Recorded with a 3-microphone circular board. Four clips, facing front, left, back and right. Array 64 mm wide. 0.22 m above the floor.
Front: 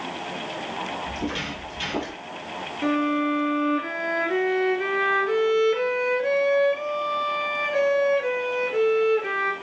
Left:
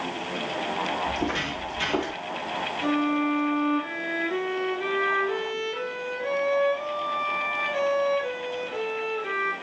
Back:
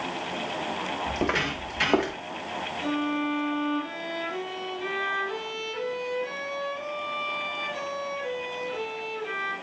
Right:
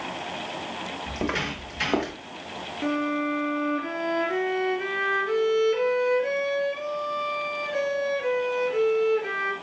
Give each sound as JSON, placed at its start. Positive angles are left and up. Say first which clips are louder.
{"t": 1.1, "sound": "footsteps", "louder": "left 1 dB, back 3 dB", "azimuth_deg": -145, "distance_m": 4.0}
{"t": 2.8, "sound": "a violin", "louder": "left 1 dB, front 6 dB", "azimuth_deg": -20, "distance_m": 1.5}